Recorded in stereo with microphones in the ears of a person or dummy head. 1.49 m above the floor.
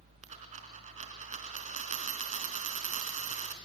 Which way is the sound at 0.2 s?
45° right (ahead or behind).